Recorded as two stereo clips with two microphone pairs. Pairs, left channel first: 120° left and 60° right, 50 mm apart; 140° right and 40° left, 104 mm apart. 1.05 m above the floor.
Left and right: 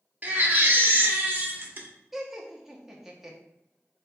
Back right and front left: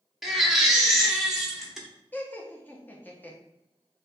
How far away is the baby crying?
About 0.6 m.